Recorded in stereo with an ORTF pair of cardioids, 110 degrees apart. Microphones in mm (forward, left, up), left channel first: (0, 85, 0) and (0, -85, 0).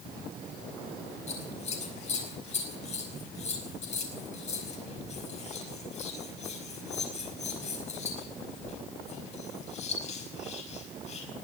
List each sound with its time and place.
1.3 s scissors: 40° left, 5.5 m